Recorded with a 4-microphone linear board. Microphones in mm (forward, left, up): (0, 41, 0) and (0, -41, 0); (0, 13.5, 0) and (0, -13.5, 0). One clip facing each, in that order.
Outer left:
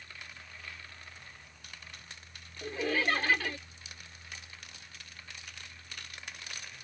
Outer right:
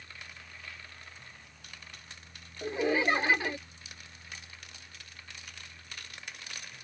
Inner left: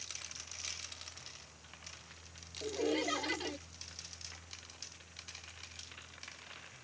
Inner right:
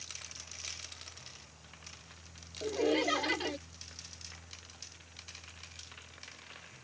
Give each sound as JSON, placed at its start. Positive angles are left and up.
{"t": 2.6, "sound": "laughter", "side_deg": -20}